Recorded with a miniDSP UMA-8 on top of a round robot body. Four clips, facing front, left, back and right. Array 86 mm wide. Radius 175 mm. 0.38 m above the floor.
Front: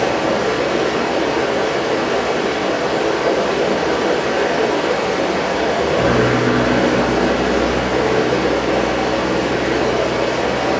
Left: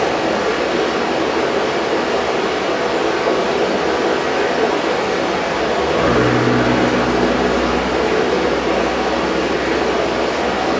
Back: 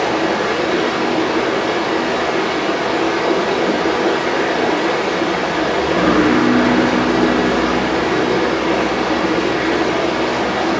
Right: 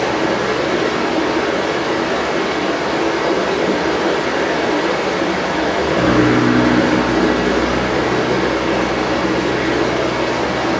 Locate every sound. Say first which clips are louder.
0.0 s running water: even, even; 145° right, 1.0 m